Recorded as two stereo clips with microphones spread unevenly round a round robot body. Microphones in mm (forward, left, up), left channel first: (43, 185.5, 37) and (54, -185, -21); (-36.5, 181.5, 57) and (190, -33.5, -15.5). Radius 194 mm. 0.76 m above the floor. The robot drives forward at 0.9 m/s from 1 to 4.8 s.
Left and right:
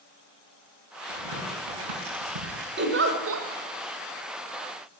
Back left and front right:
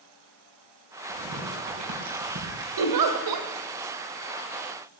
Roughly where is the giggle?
Ahead right.